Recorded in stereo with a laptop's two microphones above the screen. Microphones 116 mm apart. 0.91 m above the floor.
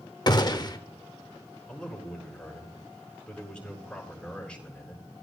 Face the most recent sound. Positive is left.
turn(degrees=5)  # may be behind; listen again after turning